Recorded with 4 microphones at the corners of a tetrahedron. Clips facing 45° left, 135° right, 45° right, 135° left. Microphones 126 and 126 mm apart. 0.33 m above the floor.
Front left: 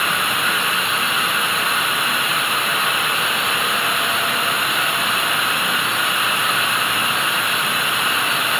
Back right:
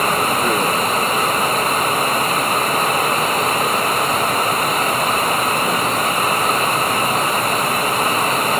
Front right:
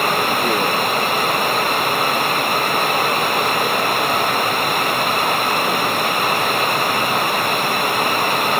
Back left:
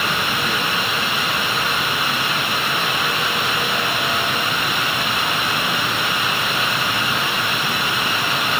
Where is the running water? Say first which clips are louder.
Back right 5 dB, front right 5 dB; 85° right.